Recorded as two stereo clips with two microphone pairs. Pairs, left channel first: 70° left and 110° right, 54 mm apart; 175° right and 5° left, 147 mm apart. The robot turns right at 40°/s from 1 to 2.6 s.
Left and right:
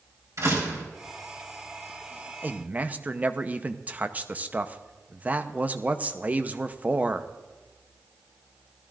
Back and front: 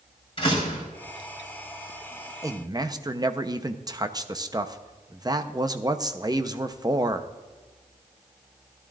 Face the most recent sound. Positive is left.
turn(degrees=-55)